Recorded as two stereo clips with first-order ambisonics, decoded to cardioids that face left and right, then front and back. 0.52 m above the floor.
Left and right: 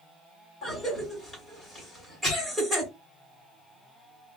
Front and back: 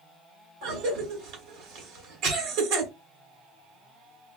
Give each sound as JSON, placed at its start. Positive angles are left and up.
{"t": 0.6, "sound": "a cough", "azimuth_deg": -165, "distance_m": 1.8}